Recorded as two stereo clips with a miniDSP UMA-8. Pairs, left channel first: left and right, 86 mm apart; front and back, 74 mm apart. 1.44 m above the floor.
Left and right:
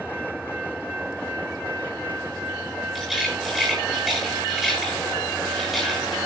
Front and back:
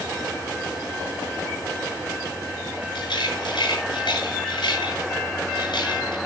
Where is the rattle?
Straight ahead, 8 m.